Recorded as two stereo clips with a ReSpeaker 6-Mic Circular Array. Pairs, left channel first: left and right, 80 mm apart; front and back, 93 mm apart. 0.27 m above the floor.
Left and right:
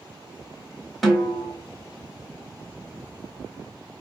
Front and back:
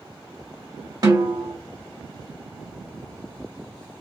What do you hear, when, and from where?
1.0 s a snare drum: straight behind, 1.5 m